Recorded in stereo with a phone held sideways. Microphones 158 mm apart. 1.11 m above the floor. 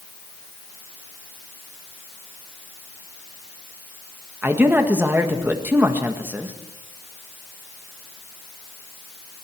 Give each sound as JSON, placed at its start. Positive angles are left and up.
{"t": 4.4, "sound": "a man speaking", "side_deg": -10, "distance_m": 1.7}